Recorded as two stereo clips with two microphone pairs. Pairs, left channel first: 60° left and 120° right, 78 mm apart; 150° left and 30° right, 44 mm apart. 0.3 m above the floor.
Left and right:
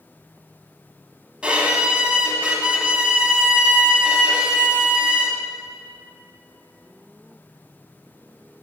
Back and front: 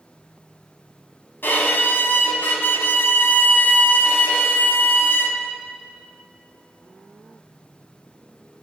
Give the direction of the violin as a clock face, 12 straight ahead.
6 o'clock.